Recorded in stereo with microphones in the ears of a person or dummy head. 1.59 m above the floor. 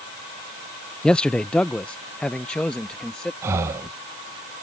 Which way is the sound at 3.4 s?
10° right (ahead or behind).